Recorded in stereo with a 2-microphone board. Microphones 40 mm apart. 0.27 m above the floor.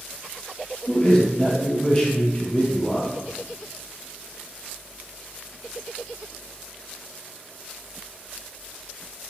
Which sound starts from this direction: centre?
A man speaking, at 0.9 s.